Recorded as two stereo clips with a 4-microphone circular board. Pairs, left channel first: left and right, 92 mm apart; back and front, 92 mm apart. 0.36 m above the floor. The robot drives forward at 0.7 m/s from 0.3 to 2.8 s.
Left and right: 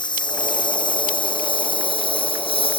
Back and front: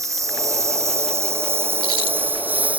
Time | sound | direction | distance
0.0 | a lawn mower | 55° left | ?